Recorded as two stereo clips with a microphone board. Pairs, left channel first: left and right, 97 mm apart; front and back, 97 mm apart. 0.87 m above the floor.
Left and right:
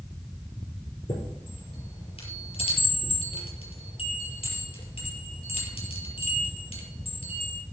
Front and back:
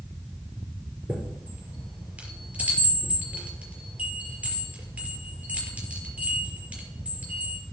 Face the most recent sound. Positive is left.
turn(degrees=105)